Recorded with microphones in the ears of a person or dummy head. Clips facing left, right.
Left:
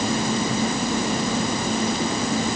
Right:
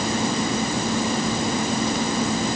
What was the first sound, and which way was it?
Only background noise.